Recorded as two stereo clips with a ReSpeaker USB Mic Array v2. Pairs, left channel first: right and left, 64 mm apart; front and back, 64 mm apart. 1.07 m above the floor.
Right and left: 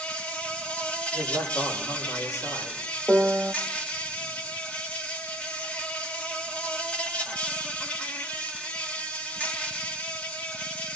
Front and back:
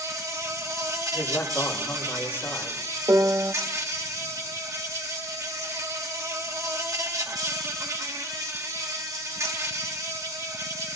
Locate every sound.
0.0 s an insect: 160° right, 1.7 m
1.1 s a man speaking: 55° right, 5 m
3.1 s a piano: 170° left, 1.3 m